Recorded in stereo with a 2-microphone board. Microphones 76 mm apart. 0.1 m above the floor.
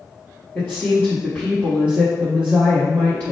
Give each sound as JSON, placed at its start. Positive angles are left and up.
{"t": 0.6, "sound": "a woman speaking", "side_deg": 10, "distance_m": 1.9}